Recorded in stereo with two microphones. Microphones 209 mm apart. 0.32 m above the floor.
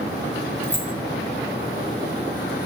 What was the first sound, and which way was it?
Keys jangling, 10° right (ahead or behind).